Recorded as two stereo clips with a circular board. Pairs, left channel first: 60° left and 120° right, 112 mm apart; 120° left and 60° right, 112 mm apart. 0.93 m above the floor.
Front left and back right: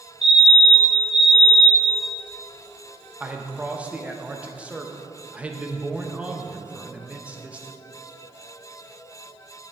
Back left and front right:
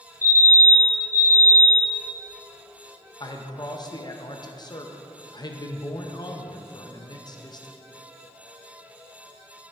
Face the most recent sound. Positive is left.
turn(degrees=165)